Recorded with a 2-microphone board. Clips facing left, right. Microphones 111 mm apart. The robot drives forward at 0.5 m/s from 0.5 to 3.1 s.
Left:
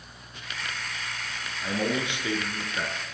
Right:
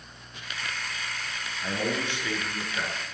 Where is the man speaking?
15° left (ahead or behind), 2.5 m; by 3.0 s 20° left (ahead or behind), 1.8 m.